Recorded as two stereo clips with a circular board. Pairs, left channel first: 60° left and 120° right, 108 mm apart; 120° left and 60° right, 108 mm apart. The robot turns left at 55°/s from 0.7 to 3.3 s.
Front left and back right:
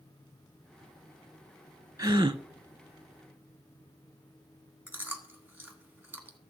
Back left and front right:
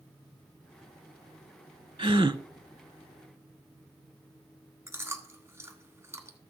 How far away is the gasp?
About 0.5 m.